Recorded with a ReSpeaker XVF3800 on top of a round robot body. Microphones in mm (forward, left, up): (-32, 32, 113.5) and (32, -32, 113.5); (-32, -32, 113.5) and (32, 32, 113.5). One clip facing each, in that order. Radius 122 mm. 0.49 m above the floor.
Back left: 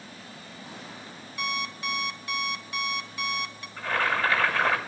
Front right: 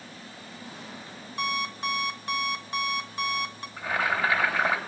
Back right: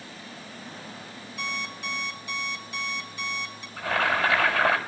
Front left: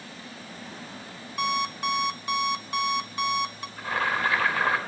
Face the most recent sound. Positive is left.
turn(degrees=-125)